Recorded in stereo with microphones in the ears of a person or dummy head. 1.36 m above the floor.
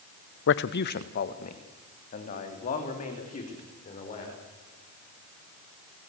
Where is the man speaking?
55° left (ahead or behind), 0.7 m; by 4.4 s 30° left (ahead or behind), 5 m.